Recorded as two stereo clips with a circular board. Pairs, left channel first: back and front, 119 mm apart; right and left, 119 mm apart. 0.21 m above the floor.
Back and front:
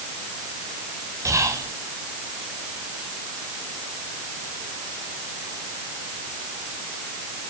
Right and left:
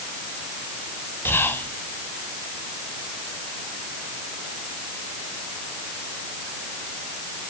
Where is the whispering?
35° right, 1.6 m.